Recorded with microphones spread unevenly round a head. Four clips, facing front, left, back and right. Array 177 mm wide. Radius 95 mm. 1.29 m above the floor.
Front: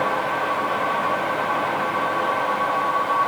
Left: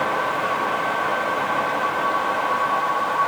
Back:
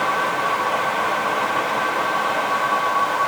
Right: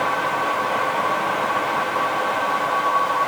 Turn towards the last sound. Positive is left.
No sound to turn to.